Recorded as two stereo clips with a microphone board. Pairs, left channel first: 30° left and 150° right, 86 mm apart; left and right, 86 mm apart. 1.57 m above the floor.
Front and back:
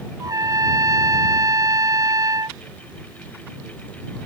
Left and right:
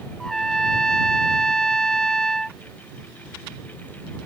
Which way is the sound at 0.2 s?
170° left.